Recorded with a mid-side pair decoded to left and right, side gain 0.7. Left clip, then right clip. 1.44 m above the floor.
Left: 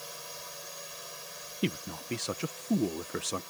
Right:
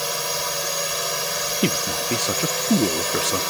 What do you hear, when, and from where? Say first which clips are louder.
0.0 s a drone: right 18 dB; 60° right; by 3.5 s 65° right
1.6 s a man speaking: right 8 dB; 40° right